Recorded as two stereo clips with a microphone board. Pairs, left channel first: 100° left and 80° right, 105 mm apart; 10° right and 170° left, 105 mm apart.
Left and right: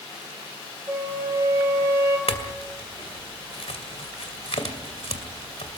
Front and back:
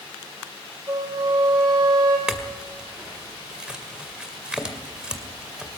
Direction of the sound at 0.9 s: 140° right.